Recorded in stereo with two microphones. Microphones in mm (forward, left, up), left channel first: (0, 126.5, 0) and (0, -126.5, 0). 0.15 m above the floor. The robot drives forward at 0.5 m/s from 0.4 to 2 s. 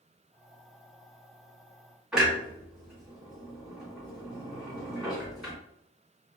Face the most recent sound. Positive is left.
turn(degrees=0)  # may be behind; listen again after turning